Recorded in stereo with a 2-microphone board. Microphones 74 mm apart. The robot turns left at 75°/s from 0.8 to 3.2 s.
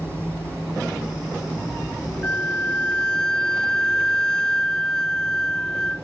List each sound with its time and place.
2.2 s a flute: 20° left (ahead or behind); by 6.0 s 10° left (ahead or behind)